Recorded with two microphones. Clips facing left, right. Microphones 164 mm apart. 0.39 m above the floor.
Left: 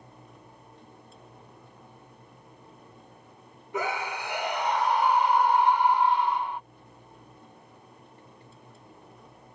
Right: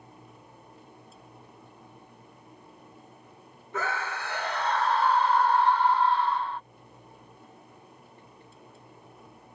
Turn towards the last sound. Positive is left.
turn(degrees=15)  # may be behind; listen again after turning